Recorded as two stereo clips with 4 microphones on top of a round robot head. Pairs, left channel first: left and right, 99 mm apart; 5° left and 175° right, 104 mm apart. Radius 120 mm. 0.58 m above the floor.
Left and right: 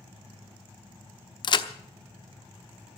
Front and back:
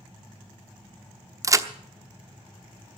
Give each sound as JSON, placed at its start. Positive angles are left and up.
{"t": 1.4, "sound": "a crack", "azimuth_deg": 125, "distance_m": 1.0}